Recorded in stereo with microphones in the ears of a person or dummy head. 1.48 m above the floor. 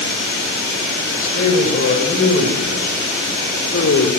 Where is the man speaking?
45° left (ahead or behind), 7 m; by 4.1 s 60° left (ahead or behind), 4.5 m.